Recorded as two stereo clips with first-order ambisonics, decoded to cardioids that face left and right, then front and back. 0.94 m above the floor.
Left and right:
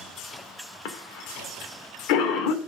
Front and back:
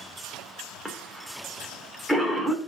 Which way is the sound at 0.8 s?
90° left.